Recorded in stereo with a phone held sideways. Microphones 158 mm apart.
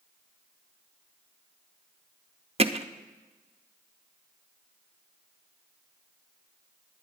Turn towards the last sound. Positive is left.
turn(degrees=-40)  # may be behind; listen again after turning